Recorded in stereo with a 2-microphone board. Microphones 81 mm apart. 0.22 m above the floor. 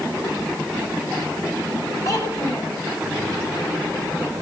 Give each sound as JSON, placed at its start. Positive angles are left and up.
{"t": 2.0, "sound": "a child speaking", "side_deg": 45, "distance_m": 5.5}